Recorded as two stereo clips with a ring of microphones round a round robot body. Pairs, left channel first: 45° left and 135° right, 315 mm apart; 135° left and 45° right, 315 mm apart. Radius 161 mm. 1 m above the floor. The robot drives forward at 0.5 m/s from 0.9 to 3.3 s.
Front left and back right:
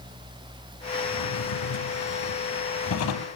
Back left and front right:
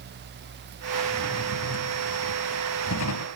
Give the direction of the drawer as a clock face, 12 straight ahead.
9 o'clock.